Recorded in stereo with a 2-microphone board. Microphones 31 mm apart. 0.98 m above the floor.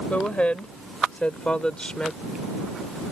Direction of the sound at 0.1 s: 45° left (ahead or behind).